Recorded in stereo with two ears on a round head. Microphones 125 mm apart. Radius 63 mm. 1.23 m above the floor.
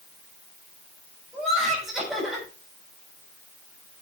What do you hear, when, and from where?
1.3 s laughter: centre (ahead or behind), 6.5 m